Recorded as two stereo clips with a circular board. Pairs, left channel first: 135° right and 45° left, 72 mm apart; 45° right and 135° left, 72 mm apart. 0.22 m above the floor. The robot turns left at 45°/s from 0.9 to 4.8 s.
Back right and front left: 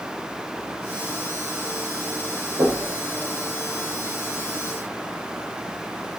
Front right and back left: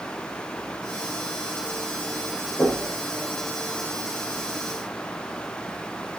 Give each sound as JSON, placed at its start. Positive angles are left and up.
{"t": 2.6, "sound": "knocking", "azimuth_deg": 30, "distance_m": 5.0}